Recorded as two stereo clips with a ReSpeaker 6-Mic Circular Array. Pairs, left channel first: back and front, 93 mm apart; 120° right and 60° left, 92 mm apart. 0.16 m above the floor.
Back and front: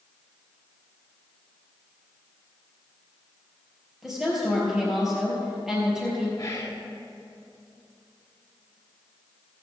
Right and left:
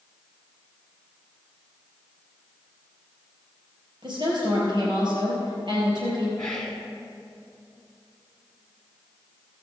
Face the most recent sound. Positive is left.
turn(degrees=170)